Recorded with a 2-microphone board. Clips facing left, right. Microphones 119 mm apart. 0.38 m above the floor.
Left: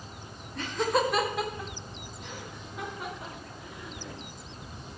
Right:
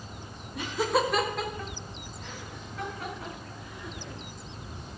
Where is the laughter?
15° right (ahead or behind), 1.2 m; by 4.2 s 20° left (ahead or behind), 5.5 m.